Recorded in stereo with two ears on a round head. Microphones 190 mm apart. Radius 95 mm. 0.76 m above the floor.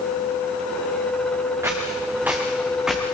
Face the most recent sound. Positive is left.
turn(degrees=0)  # may be behind; listen again after turning